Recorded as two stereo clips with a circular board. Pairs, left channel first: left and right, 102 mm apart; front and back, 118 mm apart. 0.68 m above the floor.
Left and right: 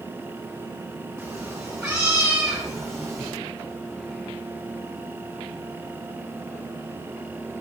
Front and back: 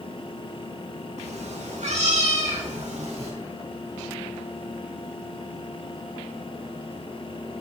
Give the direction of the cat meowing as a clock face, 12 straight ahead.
5 o'clock.